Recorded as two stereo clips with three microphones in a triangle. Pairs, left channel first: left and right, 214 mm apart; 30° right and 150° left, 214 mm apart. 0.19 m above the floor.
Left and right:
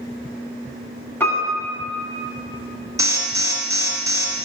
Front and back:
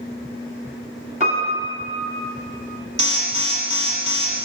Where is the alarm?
160° right, 1.2 m.